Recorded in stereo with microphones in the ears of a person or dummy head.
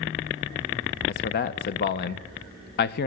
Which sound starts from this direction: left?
A man speaking, at 1.1 s.